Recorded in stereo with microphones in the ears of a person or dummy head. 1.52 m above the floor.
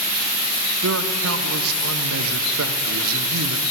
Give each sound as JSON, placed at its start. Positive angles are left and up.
{"t": 0.8, "sound": "a man speaking", "side_deg": -90, "distance_m": 0.8}